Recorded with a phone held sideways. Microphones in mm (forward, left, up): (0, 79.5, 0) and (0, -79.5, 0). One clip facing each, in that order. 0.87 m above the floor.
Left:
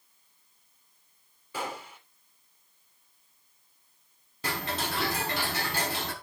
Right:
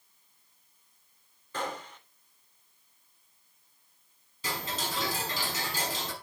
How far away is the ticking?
About 5 m.